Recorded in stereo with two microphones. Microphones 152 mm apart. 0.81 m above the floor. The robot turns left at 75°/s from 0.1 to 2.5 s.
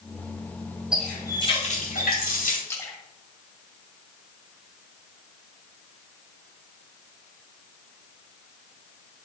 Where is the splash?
20° left (ahead or behind), 1.4 m.